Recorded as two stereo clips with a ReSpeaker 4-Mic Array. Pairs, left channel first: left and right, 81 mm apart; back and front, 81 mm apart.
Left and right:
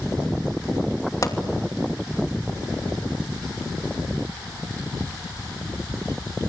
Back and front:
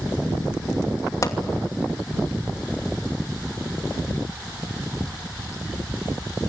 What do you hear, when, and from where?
1.2 s a pop: 135° left, 2.5 m